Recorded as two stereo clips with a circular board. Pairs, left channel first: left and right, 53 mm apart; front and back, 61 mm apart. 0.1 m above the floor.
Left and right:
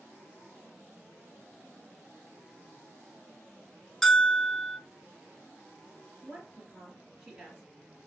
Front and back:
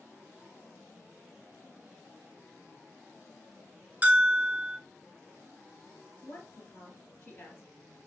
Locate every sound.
4.0 s a bell: 175° left, 0.5 m
6.2 s a woman speaking: 20° right, 2.0 m